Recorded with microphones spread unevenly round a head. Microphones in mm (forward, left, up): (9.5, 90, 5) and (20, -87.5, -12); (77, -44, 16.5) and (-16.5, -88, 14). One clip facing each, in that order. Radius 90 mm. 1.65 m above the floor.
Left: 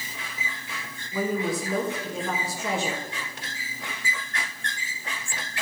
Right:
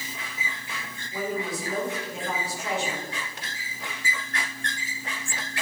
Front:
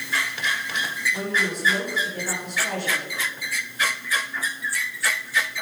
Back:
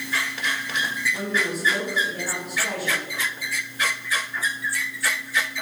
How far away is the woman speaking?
About 3 m.